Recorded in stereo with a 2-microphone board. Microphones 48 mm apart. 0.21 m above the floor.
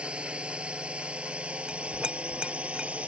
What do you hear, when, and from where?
0.0 s a drone: 20° right (ahead or behind); by 3.1 s 25° right (ahead or behind)
1.7 s a clink: 20° right (ahead or behind)